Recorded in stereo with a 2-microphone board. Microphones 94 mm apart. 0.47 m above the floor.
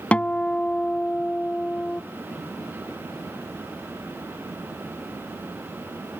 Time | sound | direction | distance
0.1 | a guitar | 15° left (ahead or behind) | ?